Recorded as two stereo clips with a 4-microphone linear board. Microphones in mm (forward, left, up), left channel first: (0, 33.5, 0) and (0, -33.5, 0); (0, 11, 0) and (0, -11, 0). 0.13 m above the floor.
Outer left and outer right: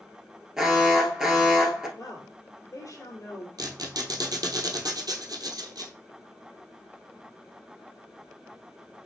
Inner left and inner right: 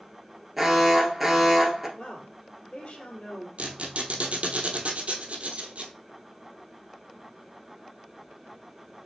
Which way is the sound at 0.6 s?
10° right (ahead or behind).